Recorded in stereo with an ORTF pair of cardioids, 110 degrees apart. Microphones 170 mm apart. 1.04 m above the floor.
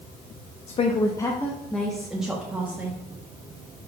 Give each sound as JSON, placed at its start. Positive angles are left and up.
{"t": 0.7, "sound": "a woman speaking", "azimuth_deg": 45, "distance_m": 0.6}